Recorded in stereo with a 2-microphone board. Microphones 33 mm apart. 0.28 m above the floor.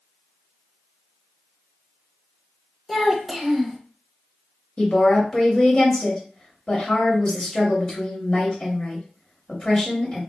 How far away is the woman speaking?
About 1.0 m.